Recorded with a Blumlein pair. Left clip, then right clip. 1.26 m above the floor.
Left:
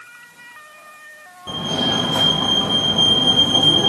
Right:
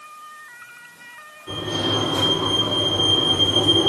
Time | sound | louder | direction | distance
1.5 | a fire alarm | left 3 dB | 25° left | 3.5 m